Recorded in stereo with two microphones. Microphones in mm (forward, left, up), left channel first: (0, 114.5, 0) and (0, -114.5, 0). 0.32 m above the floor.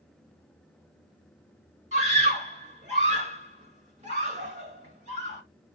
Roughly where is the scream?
Right.